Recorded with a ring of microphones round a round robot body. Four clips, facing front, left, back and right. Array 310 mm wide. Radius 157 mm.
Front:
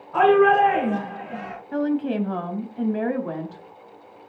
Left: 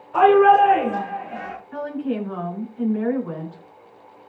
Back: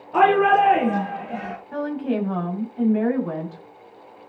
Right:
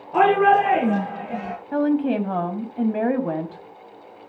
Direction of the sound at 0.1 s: 125° right.